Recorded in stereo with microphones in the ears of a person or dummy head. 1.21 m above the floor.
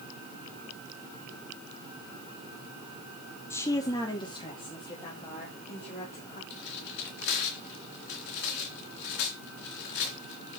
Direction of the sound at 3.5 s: 10° left (ahead or behind).